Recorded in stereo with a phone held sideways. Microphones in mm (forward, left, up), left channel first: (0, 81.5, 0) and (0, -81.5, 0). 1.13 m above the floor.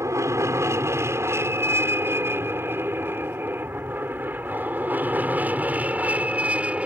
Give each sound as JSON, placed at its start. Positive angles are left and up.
{"t": 0.0, "sound": "an aircraft", "side_deg": -20}